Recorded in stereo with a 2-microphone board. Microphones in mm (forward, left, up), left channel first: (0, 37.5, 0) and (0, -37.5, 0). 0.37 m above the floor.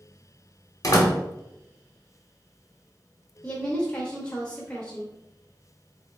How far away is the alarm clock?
No alarm clock in this recording.